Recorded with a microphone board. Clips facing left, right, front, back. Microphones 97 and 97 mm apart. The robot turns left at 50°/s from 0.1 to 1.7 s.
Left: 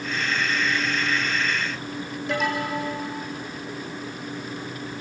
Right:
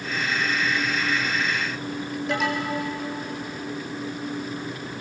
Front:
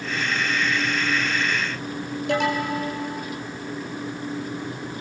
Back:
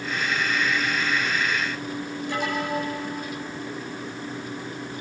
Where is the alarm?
Straight ahead, 4.5 m.